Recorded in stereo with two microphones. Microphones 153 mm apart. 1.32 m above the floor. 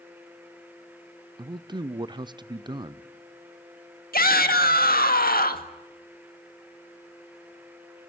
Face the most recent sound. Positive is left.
turn(degrees=80)